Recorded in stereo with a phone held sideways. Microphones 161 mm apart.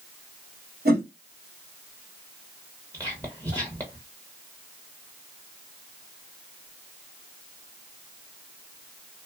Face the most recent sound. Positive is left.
turn(degrees=-20)  # may be behind; listen again after turning